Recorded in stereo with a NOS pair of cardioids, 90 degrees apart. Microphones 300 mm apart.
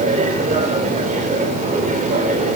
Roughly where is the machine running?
Ahead right.